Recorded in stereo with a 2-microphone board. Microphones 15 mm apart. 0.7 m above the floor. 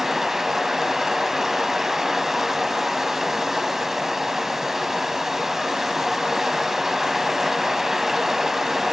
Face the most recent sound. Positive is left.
turn(degrees=-30)  # may be behind; listen again after turning